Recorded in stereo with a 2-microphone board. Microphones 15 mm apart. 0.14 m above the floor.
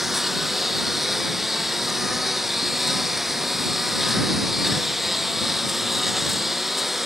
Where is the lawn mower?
10° right (ahead or behind).